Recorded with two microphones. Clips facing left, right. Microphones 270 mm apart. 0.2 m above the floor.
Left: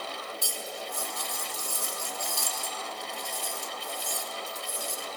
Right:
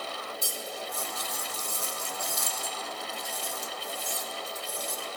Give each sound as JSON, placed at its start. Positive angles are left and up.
{"t": 0.4, "sound": "cutlery clinking", "side_deg": -25, "distance_m": 0.8}